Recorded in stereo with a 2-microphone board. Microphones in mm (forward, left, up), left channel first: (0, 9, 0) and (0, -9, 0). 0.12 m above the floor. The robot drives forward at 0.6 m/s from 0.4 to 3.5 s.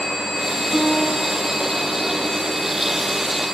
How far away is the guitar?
About 1.6 m.